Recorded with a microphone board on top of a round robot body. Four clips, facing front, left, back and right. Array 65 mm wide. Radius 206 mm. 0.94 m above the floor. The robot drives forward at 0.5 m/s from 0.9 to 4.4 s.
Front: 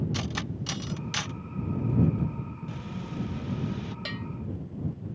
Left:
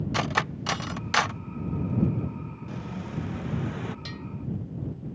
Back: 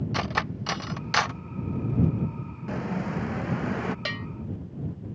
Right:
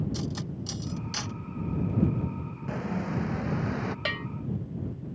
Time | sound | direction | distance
0.1 | cutlery clinking | 125° left | ?
2.7 | an explosion | 145° right | ?
4.0 | a bell | 120° right | ?